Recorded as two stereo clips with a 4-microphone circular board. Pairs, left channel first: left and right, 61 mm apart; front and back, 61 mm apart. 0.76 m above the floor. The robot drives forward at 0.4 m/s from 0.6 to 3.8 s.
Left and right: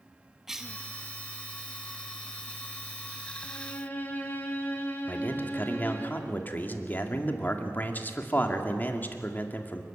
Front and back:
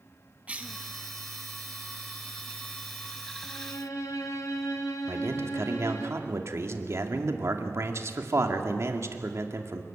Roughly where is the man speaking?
Behind left.